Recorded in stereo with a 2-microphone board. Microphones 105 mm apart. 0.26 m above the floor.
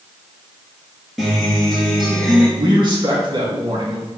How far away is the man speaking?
About 3 m.